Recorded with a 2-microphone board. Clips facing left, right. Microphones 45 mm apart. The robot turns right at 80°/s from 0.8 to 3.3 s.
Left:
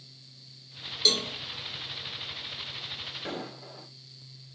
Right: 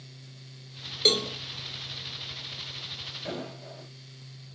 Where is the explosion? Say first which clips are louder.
Right 2 dB; 40° left (ahead or behind), 2.0 m; by 3.9 s 45° left (ahead or behind), 2.0 m.